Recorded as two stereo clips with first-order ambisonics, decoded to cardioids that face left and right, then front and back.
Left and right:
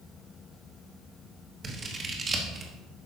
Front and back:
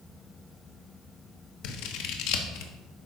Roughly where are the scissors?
Ahead.